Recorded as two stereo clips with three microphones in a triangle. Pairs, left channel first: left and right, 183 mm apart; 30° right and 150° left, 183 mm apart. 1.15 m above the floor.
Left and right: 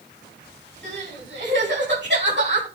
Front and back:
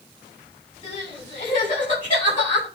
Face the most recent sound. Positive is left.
turn(degrees=-75)